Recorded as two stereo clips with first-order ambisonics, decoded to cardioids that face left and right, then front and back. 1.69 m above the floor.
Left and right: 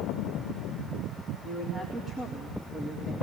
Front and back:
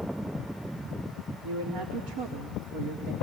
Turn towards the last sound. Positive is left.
turn(degrees=-165)